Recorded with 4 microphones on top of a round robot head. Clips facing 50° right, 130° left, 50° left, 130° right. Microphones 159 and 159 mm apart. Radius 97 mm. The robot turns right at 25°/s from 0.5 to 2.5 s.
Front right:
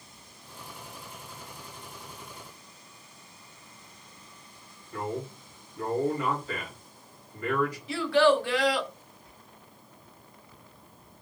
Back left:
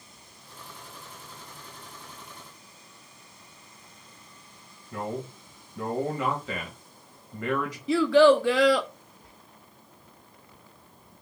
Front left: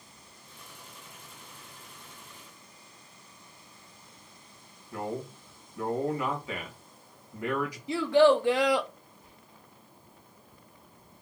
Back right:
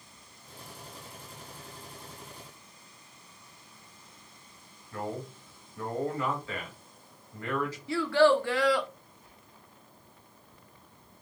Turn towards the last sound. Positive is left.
turn(degrees=105)